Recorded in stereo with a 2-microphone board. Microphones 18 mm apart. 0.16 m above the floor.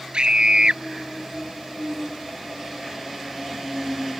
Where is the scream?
60° right (ahead or behind).